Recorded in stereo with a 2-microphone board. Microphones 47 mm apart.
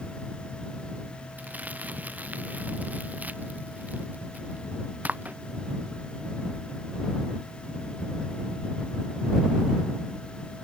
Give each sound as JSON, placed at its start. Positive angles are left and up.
{"t": 1.4, "sound": "crumpling", "side_deg": -35}